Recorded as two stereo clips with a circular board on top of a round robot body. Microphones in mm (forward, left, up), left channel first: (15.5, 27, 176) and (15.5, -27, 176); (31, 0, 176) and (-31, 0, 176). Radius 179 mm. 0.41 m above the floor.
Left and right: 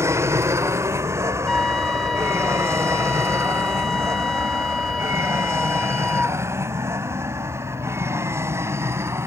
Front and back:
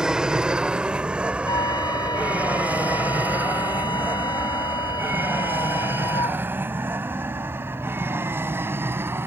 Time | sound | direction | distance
0.0 | an aircraft | 105° right | ?
1.5 | a flute | 5° left | ?